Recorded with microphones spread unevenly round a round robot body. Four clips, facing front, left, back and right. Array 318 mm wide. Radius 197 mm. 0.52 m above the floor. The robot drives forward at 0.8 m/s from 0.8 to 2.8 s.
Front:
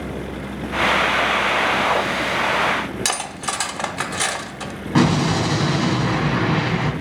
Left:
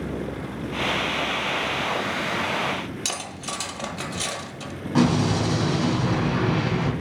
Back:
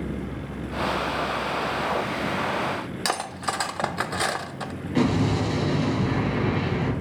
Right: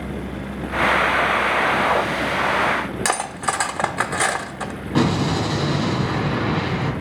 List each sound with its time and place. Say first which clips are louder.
3.0 s cutlery clinking: right 10 dB, front 1 dB; 80° right, 0.7 m
5.0 s an explosion: right 1 dB, front 5 dB; 10° right, 1.9 m